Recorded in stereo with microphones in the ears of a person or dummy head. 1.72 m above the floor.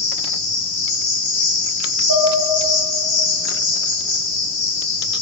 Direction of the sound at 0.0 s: 5° right (ahead or behind).